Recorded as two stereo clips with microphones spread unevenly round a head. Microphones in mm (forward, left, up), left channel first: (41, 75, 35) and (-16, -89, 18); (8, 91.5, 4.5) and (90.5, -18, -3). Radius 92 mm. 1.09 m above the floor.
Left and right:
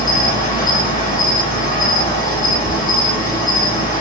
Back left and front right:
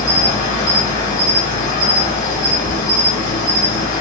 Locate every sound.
0.0 s an insect: 135° left, 1.7 m